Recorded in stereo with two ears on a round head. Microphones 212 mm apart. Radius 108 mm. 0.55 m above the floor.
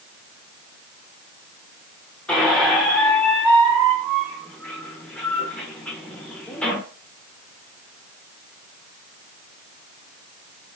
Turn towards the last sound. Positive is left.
turn(degrees=5)  # may be behind; listen again after turning